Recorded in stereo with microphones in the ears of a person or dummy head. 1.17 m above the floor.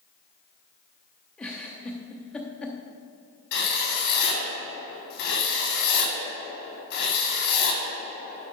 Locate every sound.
1.4 s a giggle: centre (ahead or behind), 0.6 m
3.5 s writing: 70° left (ahead or behind), 2.5 m